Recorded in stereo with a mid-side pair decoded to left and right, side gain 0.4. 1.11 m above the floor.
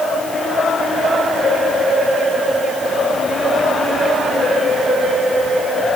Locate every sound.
Only background noise.